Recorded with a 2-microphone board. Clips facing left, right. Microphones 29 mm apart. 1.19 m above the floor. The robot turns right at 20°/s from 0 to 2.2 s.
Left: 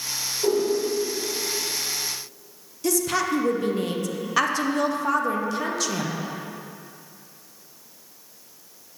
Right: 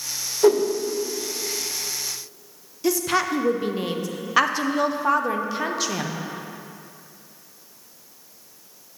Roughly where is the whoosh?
Right.